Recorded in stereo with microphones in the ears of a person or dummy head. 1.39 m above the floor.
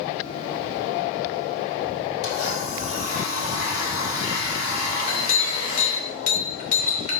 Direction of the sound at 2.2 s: 85° left.